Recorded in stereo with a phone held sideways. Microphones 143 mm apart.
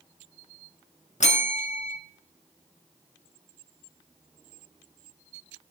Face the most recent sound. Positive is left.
turn(degrees=60)  # may be behind; listen again after turning